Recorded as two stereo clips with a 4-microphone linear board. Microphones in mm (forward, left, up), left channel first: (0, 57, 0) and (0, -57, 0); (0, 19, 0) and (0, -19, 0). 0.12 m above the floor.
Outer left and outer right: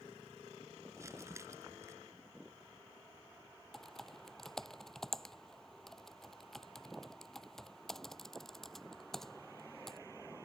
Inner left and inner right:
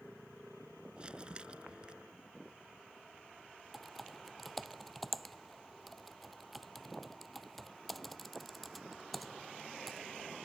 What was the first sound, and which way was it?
Crumpling, 25° right (ahead or behind).